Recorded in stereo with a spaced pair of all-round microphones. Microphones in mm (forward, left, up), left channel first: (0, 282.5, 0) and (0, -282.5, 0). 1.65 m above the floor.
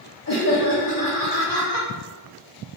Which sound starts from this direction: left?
Laughter, at 0.3 s.